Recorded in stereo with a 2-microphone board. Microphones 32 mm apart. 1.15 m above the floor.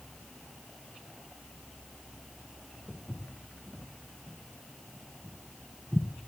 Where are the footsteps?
10° left (ahead or behind), 2 m; by 6.1 s 30° right (ahead or behind), 1.4 m.